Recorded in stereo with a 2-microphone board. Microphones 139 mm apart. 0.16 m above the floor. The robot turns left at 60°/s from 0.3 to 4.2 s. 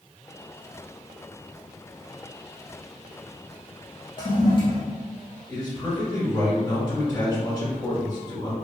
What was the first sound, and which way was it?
A toilet flushing, 35° left (ahead or behind).